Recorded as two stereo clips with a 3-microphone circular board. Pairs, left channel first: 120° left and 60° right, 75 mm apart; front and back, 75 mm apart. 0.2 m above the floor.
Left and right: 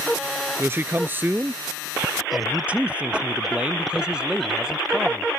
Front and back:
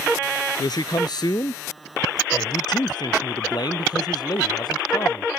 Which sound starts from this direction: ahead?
A man speaking, at 0.6 s.